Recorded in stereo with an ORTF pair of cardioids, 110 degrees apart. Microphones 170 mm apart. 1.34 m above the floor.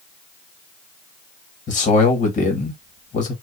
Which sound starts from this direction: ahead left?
A man speaking, at 1.7 s.